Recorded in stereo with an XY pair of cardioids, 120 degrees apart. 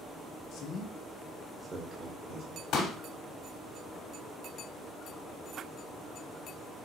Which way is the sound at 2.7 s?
65° left.